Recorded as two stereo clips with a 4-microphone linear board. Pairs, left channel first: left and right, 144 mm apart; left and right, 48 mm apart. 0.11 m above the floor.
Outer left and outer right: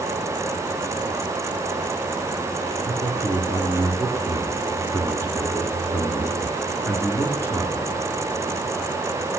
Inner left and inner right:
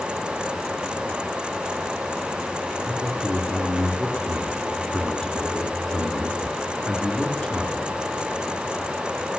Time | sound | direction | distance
2.9 | a man speaking | 20° left (ahead or behind) | 1.4 m